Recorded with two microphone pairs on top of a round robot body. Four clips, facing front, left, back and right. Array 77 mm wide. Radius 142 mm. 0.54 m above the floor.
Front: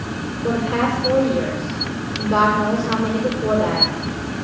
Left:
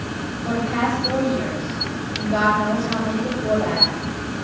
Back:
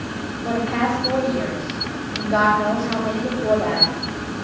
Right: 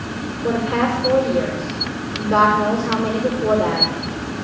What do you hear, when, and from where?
0.4 s a woman speaking: 55° right, 6.5 m